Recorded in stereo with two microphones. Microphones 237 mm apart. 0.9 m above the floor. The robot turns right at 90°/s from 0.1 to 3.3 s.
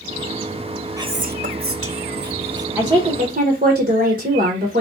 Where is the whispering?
165° right, 0.7 m; by 2.7 s 10° right, 0.7 m.